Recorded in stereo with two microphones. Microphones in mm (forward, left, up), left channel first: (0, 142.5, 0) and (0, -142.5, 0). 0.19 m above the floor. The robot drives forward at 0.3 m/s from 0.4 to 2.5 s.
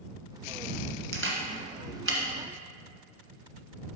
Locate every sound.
1.1 s a camera shutter: 45° right (ahead or behind), 1.6 m; by 2.2 s 50° right (ahead or behind), 1.5 m